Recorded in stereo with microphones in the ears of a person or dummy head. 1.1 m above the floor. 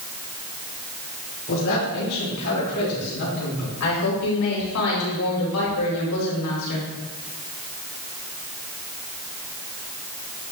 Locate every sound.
1.5 s a man speaking: 65° left (ahead or behind), 4 m; by 3.7 s 80° left, 4 m
3.8 s a woman speaking: 85° left, 4 m